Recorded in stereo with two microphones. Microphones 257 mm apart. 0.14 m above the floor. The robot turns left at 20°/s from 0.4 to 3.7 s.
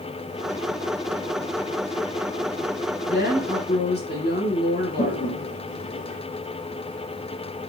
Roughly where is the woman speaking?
Left.